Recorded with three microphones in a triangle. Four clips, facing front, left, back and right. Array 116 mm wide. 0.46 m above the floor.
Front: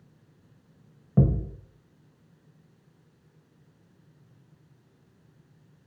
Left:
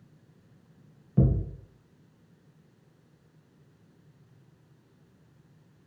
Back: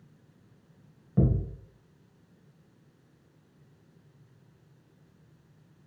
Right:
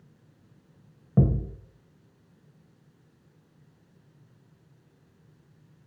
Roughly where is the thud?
Ahead right.